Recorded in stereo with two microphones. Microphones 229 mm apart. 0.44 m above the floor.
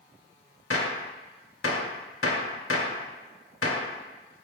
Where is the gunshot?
70° left (ahead or behind), 0.6 m.